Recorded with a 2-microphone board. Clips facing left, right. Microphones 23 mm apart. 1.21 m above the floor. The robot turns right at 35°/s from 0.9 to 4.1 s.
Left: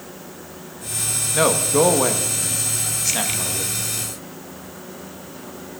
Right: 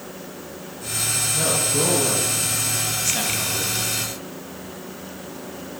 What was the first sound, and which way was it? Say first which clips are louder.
A man speaking: left 7 dB; 80° left.